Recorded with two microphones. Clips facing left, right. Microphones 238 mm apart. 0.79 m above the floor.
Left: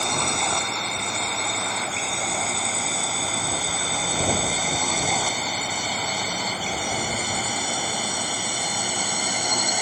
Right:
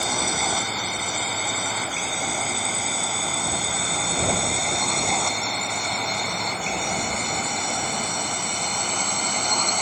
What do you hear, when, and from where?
0.0 s a drone: 5° right (ahead or behind); by 9.8 s 10° left (ahead or behind)